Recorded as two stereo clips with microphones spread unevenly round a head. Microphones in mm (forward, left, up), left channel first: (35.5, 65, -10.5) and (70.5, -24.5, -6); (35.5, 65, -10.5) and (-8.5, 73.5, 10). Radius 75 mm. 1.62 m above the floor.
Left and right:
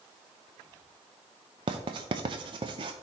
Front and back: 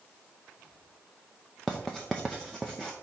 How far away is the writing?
About 0.5 m.